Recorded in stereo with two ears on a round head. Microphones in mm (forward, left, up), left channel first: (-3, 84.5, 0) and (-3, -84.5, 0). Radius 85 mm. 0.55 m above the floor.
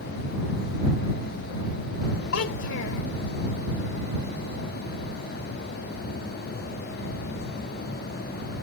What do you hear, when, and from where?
2.3 s a child speaking: 70° left (ahead or behind)